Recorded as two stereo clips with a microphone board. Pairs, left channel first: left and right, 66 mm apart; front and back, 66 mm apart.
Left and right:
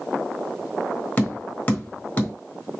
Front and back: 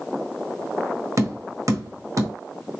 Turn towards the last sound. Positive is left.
turn(degrees=155)